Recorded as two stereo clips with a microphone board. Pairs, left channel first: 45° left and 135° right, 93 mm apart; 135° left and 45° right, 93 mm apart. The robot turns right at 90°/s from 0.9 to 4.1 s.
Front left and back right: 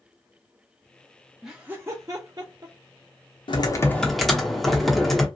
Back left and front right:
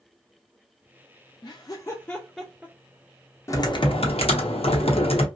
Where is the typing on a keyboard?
75° left, 0.7 m; by 5.3 s 135° left, 0.7 m.